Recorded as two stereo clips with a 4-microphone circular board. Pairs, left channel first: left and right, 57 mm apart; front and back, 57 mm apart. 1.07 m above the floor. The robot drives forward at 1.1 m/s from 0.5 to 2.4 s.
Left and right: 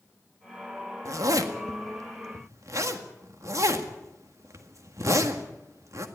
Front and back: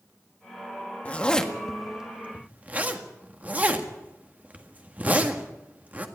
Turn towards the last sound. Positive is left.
turn(degrees=-115)